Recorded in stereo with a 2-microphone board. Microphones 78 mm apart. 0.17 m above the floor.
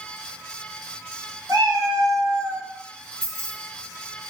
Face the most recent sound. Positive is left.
turn(degrees=-55)  # may be behind; listen again after turning